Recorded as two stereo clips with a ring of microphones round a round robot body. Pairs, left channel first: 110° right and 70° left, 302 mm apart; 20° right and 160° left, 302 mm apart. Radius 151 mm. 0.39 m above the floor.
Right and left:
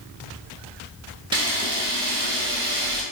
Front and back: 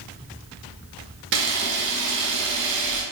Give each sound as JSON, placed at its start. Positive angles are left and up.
{"t": 1.3, "sound": "a camera shutter", "azimuth_deg": 135, "distance_m": 0.8}